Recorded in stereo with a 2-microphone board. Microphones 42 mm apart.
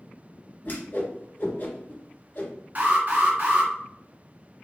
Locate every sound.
0.7 s a whoosh: 50° left (ahead or behind), 2.5 m
2.8 s an alarm: 45° right (ahead or behind), 2 m